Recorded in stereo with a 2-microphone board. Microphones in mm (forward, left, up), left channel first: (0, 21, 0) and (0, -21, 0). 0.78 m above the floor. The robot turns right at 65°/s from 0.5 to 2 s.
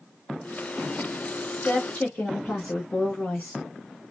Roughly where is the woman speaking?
Left.